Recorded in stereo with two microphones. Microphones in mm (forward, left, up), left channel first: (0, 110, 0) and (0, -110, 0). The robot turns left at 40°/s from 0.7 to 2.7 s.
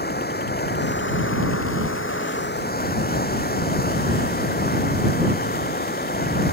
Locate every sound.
0.0 s running water: 130° left; by 6.5 s 50° left